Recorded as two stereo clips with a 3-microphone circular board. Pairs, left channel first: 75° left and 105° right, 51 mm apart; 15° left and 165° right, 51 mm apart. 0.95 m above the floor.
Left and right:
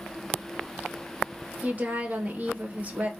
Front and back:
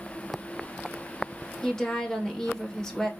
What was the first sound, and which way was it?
A woman speaking, 60° right.